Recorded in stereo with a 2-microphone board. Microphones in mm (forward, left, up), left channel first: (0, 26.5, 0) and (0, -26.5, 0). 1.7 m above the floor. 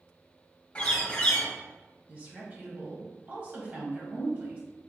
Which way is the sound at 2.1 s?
40° right (ahead or behind).